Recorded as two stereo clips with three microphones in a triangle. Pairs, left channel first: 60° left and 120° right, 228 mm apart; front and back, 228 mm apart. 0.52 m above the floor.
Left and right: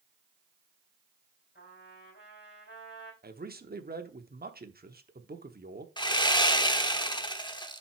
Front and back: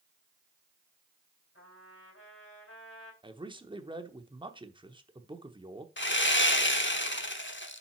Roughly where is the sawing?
Ahead.